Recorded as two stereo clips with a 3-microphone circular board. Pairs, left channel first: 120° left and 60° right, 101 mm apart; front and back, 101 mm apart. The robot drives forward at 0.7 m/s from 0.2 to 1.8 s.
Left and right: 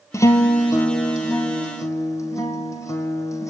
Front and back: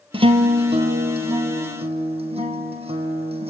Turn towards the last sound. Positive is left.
turn(degrees=180)